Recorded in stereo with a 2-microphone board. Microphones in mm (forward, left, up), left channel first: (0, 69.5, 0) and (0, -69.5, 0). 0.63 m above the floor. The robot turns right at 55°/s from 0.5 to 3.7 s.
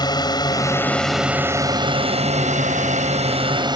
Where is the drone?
30° left (ahead or behind); by 3.8 s 35° right (ahead or behind).